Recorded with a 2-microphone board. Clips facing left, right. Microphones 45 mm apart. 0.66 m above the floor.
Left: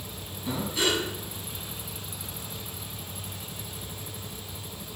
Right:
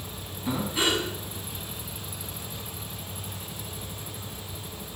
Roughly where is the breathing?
Centre.